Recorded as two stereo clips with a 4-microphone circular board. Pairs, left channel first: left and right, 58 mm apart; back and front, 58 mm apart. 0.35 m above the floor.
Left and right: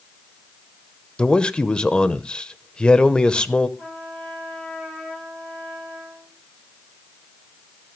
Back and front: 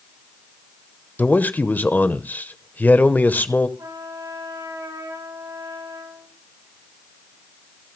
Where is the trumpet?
15° left, 9 m.